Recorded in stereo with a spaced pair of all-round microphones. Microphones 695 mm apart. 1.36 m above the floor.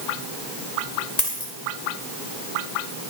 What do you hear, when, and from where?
1.2 s a dropped coin: 70° left (ahead or behind), 2 m